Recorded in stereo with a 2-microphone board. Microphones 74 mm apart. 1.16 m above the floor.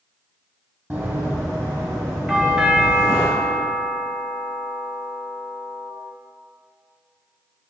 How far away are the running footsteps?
About 1.7 m.